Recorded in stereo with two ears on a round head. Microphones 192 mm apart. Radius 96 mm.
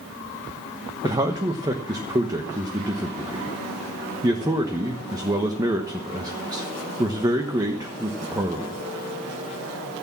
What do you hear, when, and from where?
1.0 s a man speaking: 20° right (ahead or behind), 1.2 m